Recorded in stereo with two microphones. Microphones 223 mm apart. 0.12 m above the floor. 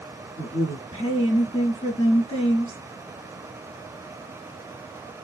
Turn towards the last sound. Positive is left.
turn(degrees=20)  # may be behind; listen again after turning